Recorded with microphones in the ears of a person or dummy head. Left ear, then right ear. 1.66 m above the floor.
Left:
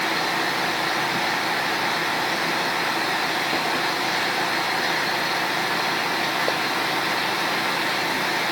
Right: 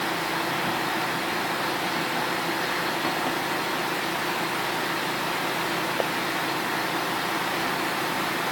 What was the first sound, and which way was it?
Only background noise.